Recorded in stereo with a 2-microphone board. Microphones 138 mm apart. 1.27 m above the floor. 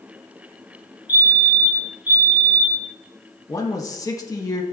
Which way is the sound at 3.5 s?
25° left (ahead or behind).